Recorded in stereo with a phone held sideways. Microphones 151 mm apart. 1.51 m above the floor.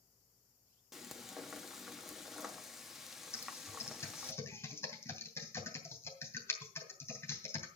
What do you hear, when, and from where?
0.9 s frying: centre (ahead or behind), 1.2 m
3.3 s typing on a keyboard: 15° left (ahead or behind), 2.5 m